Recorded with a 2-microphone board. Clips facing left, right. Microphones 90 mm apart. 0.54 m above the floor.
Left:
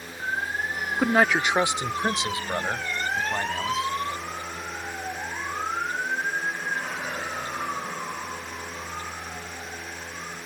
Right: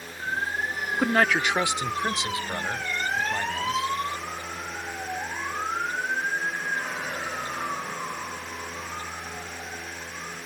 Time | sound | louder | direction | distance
1.0 | a man speaking | left 1 dB | centre (ahead or behind) | ?